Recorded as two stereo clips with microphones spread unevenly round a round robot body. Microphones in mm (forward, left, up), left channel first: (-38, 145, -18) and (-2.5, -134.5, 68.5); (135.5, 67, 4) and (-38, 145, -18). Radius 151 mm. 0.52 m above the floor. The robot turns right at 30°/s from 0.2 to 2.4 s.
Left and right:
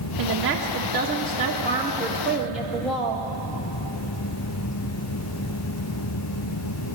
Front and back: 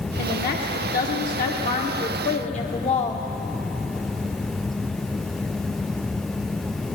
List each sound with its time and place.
0.2 s a woman speaking: 40° right, 1.3 m; by 3.2 s 25° left, 1.3 m